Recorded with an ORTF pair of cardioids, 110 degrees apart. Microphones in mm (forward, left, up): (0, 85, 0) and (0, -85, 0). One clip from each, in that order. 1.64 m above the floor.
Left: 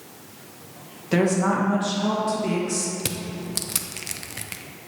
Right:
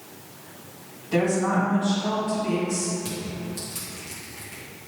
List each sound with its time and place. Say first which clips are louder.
1.1 s a woman speaking: left 1 dB; 60° left, 1.8 m
3.0 s crushing: left 2 dB; 65° left, 0.6 m